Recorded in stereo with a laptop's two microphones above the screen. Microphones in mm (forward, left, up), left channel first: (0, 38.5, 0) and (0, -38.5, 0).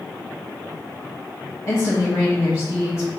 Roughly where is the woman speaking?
Left.